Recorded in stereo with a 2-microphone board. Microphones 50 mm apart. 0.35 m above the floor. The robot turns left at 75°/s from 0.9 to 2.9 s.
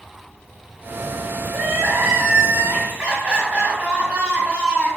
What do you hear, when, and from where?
1.5 s crying: 50° right, 1.3 m; by 4.9 s 155° right, 1.3 m